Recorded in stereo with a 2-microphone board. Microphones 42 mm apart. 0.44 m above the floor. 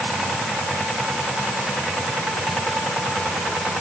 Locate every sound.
Only background noise.